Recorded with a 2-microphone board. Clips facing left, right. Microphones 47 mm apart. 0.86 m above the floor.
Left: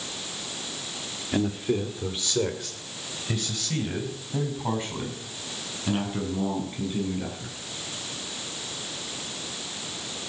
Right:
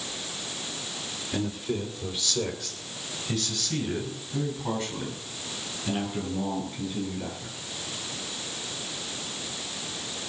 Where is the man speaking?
30° left (ahead or behind), 1.9 m; by 7.6 s 25° left (ahead or behind), 9 m.